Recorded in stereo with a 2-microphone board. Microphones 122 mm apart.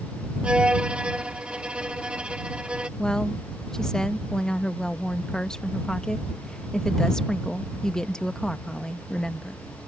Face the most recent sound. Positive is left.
turn(degrees=5)  # may be behind; listen again after turning